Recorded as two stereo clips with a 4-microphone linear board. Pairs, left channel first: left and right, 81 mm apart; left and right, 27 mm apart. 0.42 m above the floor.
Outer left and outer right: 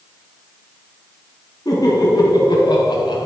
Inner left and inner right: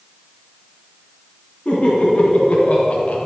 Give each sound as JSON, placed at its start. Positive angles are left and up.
{"t": 1.6, "sound": "laughter", "side_deg": 45, "distance_m": 4.0}